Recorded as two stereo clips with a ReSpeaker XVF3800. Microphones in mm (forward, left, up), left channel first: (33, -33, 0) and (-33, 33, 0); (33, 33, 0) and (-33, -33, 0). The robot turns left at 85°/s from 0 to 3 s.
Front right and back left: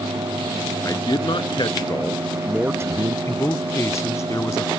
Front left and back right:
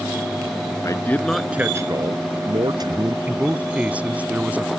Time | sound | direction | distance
0.8 | a man speaking | straight ahead | ?
3.3 | a man speaking | 70° right | ?